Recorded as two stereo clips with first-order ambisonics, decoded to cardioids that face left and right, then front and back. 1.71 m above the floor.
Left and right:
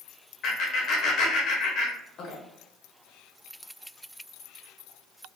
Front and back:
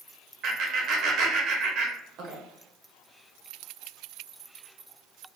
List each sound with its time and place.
0.4 s laughter: 135° left, 1.0 m